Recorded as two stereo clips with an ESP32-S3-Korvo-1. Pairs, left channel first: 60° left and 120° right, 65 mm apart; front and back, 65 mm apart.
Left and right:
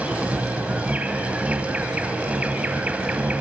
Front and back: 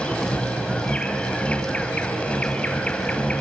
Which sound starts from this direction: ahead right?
An insect, at 0.0 s.